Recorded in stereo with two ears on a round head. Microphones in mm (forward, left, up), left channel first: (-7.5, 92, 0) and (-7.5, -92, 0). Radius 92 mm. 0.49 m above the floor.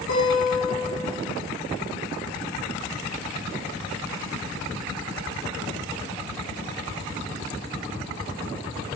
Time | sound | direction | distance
0.1 | a guitar | 85° left | 5 m